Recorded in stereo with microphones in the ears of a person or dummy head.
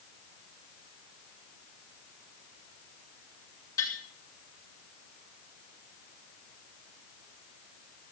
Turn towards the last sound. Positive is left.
turn(degrees=20)  # may be behind; listen again after turning